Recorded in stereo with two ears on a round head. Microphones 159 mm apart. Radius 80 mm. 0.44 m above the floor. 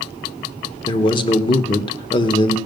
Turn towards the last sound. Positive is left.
turn(degrees=25)  # may be behind; listen again after turning